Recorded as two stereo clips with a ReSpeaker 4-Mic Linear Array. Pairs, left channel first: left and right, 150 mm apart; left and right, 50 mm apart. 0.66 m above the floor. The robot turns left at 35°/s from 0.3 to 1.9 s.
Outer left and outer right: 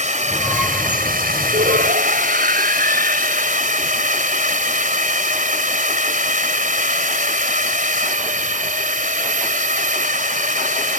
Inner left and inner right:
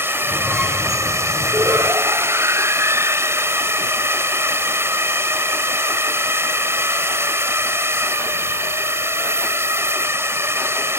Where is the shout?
85° right; by 3.6 s 75° right (ahead or behind).